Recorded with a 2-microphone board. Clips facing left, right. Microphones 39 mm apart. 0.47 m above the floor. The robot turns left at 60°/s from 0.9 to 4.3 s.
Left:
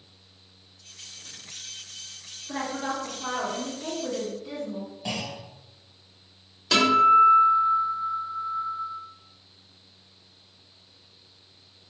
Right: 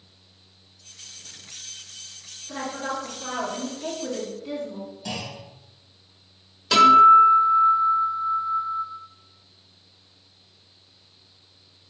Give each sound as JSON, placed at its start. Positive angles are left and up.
{"t": 2.5, "sound": "a woman speaking", "side_deg": 15, "distance_m": 1.2}
{"t": 5.0, "sound": "a clunk", "side_deg": 25, "distance_m": 2.5}
{"t": 6.7, "sound": "a guitar", "side_deg": 0, "distance_m": 1.4}